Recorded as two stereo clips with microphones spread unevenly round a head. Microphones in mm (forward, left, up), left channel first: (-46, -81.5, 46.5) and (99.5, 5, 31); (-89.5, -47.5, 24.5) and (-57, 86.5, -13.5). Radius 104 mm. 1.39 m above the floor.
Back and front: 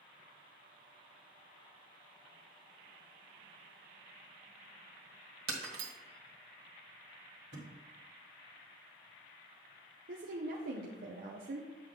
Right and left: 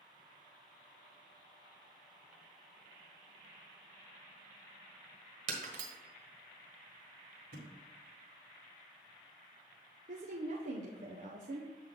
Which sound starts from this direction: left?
A thud, at 7.5 s.